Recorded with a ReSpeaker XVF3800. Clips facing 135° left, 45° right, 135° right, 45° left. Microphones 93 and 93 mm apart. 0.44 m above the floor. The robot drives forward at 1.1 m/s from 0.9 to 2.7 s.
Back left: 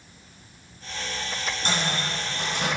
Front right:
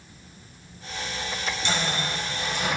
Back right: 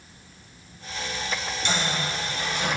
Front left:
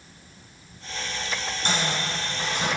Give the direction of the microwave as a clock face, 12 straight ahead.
9 o'clock.